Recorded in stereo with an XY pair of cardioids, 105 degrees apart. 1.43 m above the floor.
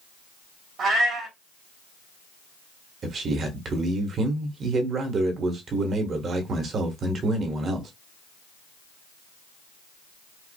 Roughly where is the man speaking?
Ahead right.